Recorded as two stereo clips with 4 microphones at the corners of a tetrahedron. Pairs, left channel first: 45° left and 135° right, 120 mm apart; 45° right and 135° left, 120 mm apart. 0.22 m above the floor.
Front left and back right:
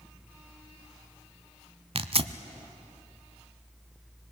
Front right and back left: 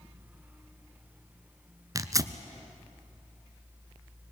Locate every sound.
1.9 s tearing paper: 165° right, 0.8 m